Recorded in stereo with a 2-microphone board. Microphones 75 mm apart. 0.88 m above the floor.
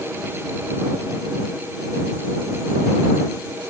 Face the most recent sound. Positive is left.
No sound to turn to.